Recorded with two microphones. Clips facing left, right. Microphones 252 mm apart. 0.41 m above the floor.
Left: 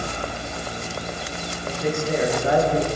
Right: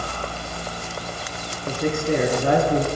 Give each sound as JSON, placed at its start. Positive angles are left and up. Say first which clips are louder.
{"t": 1.7, "sound": "a man speaking", "louder": "right 2 dB", "side_deg": -60, "distance_m": 6.0}